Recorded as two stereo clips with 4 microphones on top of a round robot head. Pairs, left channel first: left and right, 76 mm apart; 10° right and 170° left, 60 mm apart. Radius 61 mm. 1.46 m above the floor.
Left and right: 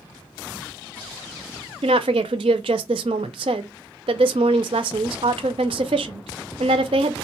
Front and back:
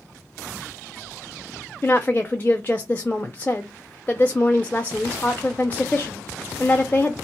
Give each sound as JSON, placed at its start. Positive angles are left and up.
{"t": 1.8, "sound": "a woman speaking", "azimuth_deg": -85, "distance_m": 0.5}